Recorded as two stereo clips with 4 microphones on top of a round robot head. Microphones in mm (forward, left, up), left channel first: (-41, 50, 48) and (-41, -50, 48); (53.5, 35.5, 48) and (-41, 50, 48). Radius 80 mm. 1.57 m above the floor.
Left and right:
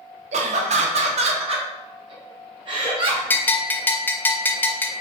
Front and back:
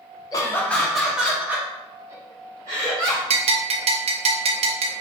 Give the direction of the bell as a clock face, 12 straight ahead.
7 o'clock.